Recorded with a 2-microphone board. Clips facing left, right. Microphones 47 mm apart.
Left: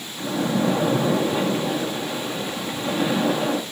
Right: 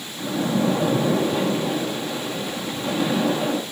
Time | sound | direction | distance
0.2 | a splash | 10° left (ahead or behind) | 1.7 m